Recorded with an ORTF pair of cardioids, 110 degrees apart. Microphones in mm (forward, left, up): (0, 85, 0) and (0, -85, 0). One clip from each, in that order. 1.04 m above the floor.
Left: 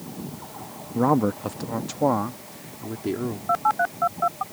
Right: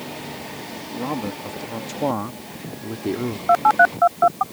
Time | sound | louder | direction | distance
0.9 | a man speaking | left 7 dB | 55° left | ?
3.5 | a phone buzzing | right 8 dB | 40° right | ?